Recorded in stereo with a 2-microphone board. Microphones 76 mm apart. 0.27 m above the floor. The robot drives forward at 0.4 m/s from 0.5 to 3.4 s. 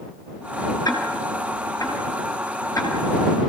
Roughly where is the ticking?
Left.